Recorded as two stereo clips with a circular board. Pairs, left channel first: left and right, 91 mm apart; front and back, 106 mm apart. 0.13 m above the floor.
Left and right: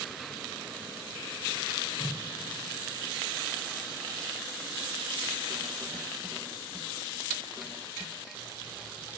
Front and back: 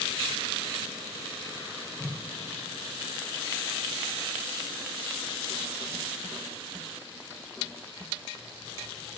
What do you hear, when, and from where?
2.0 s a whoosh: 70° left, 1.6 m